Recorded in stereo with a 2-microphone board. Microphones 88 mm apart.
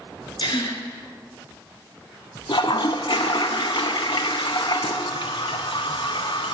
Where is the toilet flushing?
65° left (ahead or behind), 0.5 m.